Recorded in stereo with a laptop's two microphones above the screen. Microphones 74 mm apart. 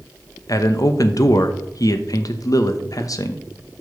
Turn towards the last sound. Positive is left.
turn(degrees=55)  # may be behind; listen again after turning